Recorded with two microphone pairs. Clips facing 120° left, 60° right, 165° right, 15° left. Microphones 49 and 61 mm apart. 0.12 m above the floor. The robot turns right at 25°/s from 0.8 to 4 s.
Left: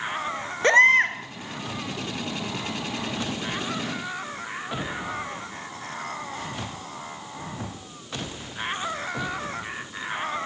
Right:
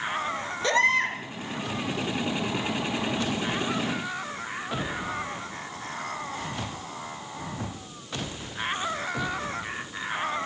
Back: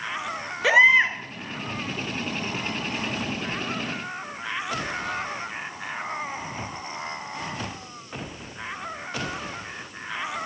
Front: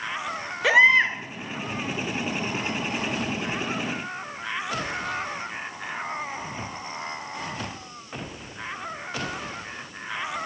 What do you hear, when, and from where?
0.6 s a baby crying: 105° left, 0.9 m; by 1.2 s 115° left, 0.9 m